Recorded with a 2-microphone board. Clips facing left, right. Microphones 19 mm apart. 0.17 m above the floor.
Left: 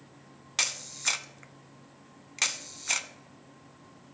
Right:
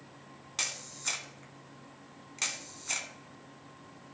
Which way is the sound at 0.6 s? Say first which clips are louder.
Left 5 dB; 25° left (ahead or behind).